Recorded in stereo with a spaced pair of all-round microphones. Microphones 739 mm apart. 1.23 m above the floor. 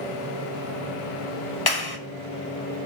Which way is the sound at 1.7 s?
30° left (ahead or behind).